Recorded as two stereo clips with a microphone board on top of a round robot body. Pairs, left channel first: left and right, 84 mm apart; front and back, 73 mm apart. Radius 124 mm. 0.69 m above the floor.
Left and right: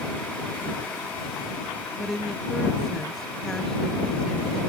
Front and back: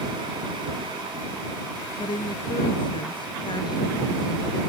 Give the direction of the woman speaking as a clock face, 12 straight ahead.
12 o'clock.